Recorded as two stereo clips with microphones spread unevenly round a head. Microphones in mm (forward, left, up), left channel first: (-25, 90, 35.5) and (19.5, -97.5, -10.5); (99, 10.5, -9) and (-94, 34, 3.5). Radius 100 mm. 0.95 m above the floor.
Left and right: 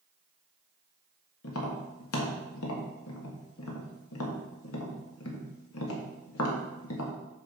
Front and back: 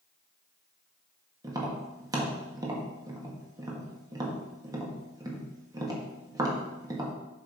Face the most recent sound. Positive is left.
turn(degrees=100)